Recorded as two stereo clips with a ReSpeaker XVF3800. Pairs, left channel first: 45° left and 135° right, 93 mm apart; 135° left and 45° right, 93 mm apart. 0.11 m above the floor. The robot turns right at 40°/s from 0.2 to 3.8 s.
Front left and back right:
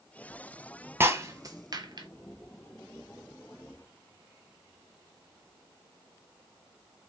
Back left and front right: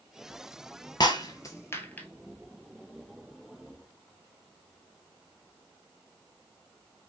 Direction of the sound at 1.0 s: 165° left.